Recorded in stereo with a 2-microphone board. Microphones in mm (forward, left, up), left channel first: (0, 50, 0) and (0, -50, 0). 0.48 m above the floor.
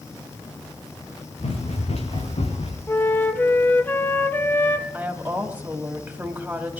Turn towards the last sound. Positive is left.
turn(degrees=-15)  # may be behind; listen again after turning